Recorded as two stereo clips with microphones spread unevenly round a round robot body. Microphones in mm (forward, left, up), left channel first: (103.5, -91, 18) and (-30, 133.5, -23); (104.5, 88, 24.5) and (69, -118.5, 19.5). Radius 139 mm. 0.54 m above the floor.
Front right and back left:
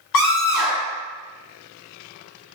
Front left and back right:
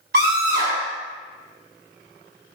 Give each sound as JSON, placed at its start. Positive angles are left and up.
{"t": 0.1, "sound": "a scream", "azimuth_deg": -65, "distance_m": 1.9}